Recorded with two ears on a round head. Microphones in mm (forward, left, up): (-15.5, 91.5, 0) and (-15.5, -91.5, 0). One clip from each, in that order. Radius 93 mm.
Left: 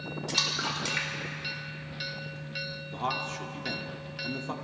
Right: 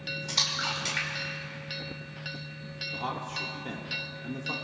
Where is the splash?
5° right (ahead or behind), 2.5 m.